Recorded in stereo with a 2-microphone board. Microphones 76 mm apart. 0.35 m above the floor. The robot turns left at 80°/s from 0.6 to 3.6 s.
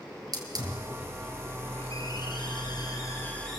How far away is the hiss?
About 4 m.